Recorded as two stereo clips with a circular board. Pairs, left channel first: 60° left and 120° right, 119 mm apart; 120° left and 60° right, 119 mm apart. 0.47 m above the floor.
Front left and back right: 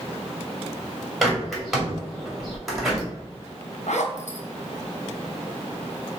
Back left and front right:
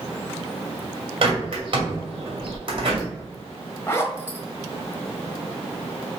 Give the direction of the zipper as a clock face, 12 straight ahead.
10 o'clock.